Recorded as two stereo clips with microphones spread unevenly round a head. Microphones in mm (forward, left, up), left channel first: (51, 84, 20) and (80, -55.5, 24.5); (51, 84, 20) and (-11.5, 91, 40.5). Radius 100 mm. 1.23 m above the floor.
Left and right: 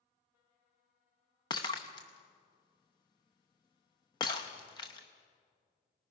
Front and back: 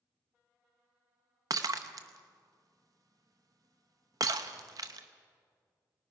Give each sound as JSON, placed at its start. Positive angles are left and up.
{"t": 1.5, "sound": "breaking glass", "azimuth_deg": 170, "distance_m": 0.8}